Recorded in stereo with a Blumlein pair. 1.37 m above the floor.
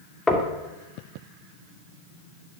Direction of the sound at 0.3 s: 10° left.